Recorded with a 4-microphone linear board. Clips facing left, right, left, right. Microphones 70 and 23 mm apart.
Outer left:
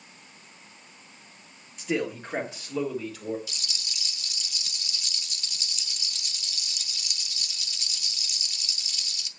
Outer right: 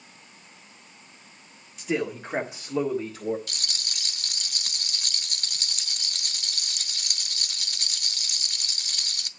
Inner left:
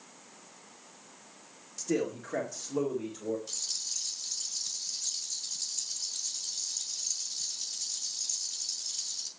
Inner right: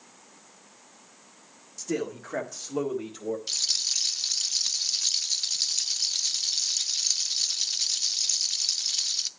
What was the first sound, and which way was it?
A man speaking, centre (ahead or behind).